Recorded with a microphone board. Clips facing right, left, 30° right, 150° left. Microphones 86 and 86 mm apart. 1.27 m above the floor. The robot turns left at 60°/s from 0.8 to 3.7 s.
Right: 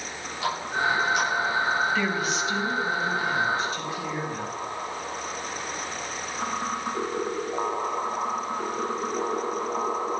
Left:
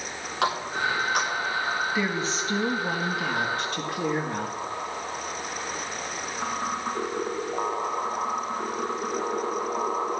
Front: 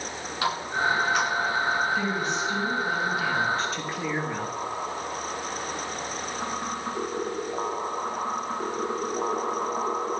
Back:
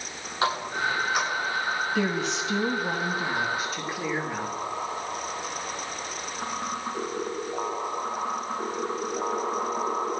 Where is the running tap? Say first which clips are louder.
Even, even; 85° left, 9 m; by 1.3 s 55° left, 9 m.